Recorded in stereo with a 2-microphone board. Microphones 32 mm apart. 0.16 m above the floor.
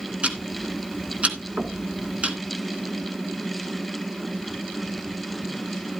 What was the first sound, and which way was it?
Ticking, 40° right (ahead or behind).